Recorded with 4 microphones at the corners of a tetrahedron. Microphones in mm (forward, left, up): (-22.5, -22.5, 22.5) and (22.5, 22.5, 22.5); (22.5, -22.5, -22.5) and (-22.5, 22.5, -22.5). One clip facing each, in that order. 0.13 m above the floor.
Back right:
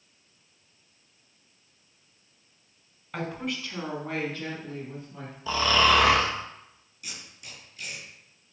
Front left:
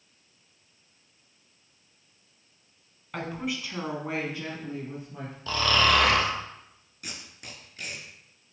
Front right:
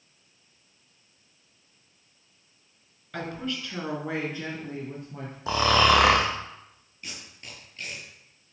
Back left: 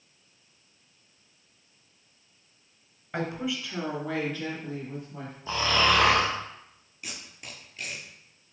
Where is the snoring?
55° right, 1.5 m.